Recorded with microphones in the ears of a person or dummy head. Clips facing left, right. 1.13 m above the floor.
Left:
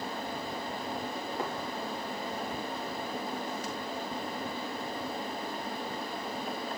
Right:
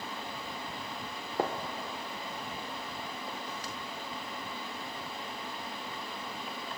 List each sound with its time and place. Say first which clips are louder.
1.4 s a gunshot: right 6 dB; 25° right (ahead or behind), 0.7 m